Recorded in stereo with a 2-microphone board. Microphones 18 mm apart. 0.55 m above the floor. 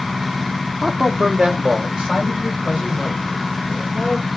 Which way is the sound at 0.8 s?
25° right (ahead or behind).